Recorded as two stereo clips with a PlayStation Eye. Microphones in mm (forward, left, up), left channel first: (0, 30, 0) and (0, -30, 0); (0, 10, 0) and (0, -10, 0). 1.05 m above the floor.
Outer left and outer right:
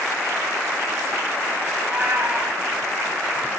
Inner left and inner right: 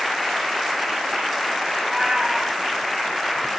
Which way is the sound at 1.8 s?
30° right (ahead or behind).